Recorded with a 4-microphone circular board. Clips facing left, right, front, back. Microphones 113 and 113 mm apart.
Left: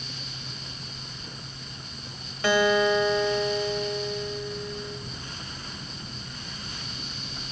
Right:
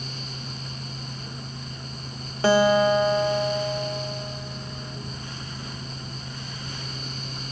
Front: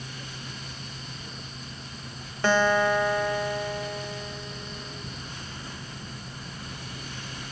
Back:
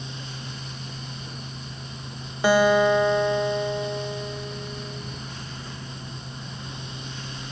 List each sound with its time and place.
2.4 s a guitar: 110° right, 0.6 m